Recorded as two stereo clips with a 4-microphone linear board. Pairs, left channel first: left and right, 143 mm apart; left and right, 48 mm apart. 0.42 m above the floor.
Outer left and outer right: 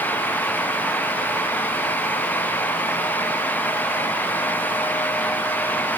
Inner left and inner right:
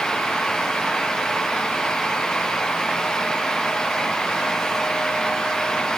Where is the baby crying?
I don't hear a baby crying.